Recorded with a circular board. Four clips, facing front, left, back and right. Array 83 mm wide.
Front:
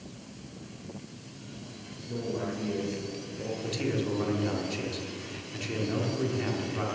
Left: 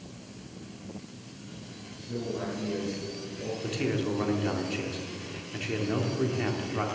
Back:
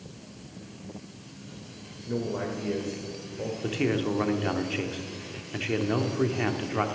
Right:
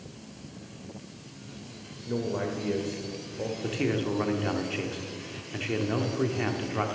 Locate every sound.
2.1 s a man speaking: 120° right, 1.6 m
3.6 s a man speaking: 165° right, 1.1 m